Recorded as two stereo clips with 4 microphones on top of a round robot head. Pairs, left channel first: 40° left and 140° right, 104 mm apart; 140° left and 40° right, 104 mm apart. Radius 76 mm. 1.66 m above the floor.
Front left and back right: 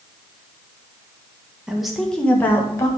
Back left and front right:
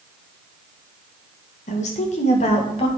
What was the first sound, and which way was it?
A woman speaking, 135° left.